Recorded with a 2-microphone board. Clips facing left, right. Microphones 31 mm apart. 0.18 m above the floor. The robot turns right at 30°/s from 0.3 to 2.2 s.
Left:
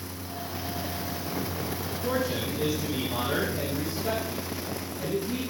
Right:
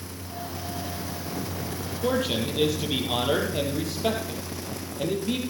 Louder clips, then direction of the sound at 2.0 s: Right 4 dB; 65° right (ahead or behind).